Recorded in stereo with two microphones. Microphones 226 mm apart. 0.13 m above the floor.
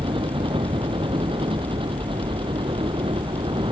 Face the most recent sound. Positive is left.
turn(degrees=-25)  # may be behind; listen again after turning